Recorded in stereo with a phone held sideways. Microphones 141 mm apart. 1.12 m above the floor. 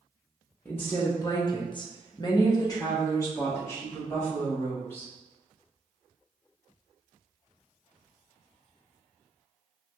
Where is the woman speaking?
10° left (ahead or behind), 0.7 m; by 5.1 s 15° left (ahead or behind), 2.5 m.